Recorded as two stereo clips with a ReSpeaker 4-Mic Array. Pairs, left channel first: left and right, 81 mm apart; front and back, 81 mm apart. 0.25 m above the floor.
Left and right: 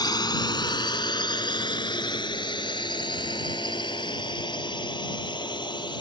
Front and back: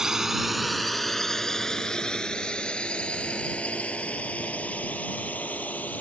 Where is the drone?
100° left; by 6.0 s 70° left.